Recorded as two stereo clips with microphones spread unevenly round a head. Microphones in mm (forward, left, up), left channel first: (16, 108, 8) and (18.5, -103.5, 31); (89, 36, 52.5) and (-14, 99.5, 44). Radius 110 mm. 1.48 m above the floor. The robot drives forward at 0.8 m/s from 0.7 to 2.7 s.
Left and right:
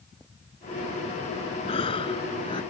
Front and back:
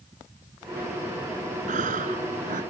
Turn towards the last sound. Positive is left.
turn(degrees=165)